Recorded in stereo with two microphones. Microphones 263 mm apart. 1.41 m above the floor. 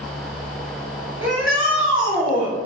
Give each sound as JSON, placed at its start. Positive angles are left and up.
{"t": 1.2, "sound": "a shout", "side_deg": -55, "distance_m": 1.8}